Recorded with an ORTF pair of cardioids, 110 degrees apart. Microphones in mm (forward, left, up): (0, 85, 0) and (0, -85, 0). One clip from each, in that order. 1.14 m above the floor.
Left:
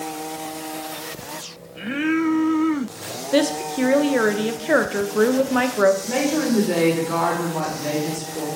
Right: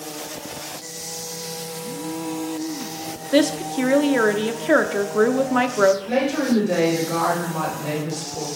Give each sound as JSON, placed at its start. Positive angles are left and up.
{"t": 3.3, "sound": "a woman speaking", "azimuth_deg": -5, "distance_m": 0.6}
{"t": 6.0, "sound": "a woman speaking", "azimuth_deg": 50, "distance_m": 4.0}